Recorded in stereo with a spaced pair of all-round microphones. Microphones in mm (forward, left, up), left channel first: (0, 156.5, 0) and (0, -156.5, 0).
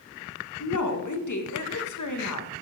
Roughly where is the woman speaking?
Left.